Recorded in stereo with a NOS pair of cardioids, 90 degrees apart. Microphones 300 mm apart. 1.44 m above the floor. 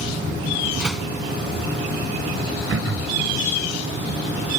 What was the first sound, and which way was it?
A door slam, straight ahead.